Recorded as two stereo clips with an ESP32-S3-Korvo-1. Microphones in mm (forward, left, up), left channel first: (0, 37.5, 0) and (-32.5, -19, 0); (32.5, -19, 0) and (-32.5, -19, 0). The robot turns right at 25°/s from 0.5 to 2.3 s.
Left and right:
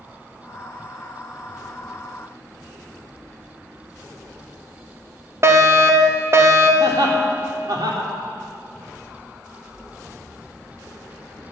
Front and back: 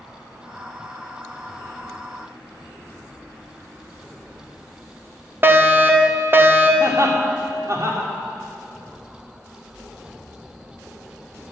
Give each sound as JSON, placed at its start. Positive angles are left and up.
{"t": 5.4, "sound": "a fire alarm", "azimuth_deg": -140, "distance_m": 1.4}
{"t": 6.8, "sound": "laughter", "azimuth_deg": -135, "distance_m": 3.5}